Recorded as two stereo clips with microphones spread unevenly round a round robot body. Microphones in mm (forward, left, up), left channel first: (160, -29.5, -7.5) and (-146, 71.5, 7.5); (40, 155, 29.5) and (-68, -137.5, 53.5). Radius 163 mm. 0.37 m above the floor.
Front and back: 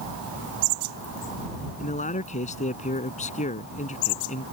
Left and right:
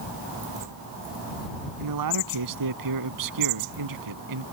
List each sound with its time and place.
1.8 s a man speaking: 85° right